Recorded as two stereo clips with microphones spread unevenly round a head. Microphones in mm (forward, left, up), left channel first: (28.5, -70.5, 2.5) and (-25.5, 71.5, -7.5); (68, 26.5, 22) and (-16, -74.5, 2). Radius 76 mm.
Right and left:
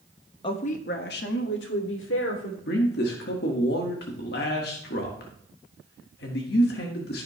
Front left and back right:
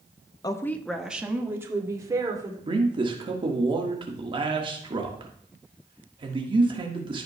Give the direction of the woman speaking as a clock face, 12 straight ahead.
12 o'clock.